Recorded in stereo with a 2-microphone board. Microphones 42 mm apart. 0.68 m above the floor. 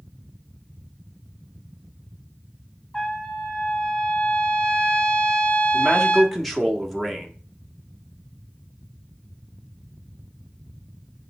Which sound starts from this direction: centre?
A man speaking, at 5.7 s.